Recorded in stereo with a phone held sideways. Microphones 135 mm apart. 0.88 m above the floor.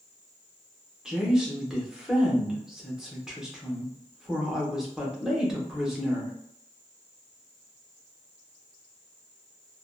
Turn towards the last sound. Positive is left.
turn(degrees=-5)  # may be behind; listen again after turning